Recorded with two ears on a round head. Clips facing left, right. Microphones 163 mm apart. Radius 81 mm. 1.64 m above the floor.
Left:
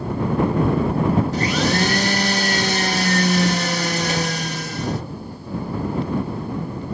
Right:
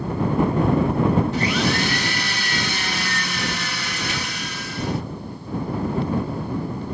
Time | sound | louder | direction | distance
1.3 | a blender | left 2 dB | 35° left (ahead or behind) | ?